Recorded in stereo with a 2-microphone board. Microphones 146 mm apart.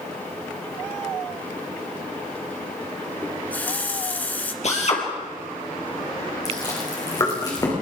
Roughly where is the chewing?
Left.